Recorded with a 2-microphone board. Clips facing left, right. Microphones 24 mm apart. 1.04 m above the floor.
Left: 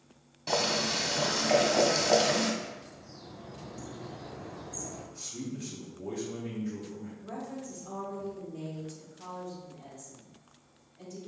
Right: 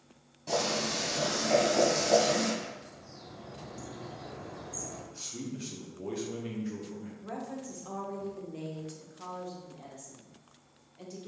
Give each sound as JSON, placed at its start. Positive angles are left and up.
{"t": 0.5, "sound": "boiling", "side_deg": 45, "distance_m": 1.3}
{"t": 2.6, "sound": "a bird", "side_deg": -30, "distance_m": 1.1}
{"t": 5.1, "sound": "a man speaking", "side_deg": -40, "distance_m": 0.8}
{"t": 7.2, "sound": "a woman speaking", "side_deg": -60, "distance_m": 1.2}